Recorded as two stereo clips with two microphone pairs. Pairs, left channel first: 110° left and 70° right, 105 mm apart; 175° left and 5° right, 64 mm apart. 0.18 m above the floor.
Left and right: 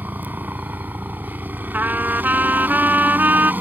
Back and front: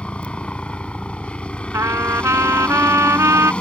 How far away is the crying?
I don't hear crying.